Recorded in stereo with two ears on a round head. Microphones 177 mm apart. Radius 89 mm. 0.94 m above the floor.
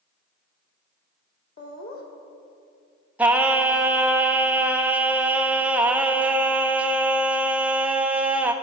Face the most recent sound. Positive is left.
turn(degrees=-5)  # may be behind; listen again after turning